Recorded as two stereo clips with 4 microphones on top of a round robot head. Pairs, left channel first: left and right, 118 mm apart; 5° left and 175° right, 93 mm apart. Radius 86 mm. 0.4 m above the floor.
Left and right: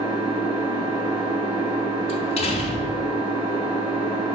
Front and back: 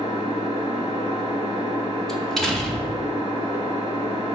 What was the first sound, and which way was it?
An engine running, 55° right.